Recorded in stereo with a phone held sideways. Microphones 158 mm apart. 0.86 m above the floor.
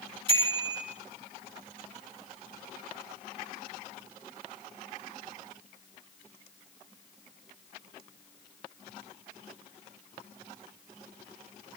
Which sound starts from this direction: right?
A bicycle bell, at 0.3 s.